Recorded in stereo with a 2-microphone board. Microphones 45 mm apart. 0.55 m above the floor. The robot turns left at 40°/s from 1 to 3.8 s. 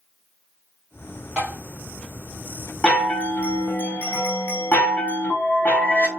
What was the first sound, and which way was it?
Tapping, 30° right (ahead or behind).